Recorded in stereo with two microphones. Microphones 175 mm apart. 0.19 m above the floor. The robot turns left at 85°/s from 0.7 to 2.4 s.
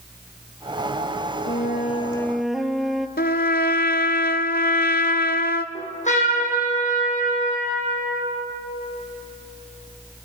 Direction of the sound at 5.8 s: 45° left (ahead or behind).